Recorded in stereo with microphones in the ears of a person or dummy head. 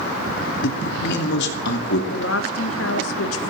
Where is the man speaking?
65° left (ahead or behind), 2.5 m.